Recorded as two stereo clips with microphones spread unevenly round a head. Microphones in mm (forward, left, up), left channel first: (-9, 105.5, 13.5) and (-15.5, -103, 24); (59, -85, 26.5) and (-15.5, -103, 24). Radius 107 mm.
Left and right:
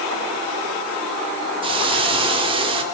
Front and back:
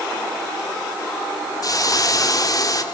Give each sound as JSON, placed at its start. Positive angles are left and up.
{"t": 1.6, "sound": "a hiss", "azimuth_deg": -25, "distance_m": 4.0}